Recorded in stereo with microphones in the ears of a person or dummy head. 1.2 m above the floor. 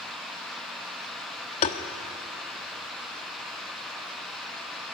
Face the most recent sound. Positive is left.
turn(degrees=40)  # may be behind; listen again after turning